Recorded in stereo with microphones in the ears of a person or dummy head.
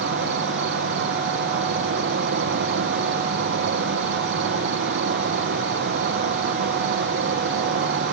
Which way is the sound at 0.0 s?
40° right (ahead or behind).